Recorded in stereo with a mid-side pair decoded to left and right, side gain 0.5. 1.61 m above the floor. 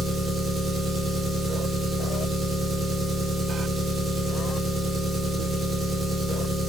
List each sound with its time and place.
0.0 s an engine running: 35° right, 1.0 m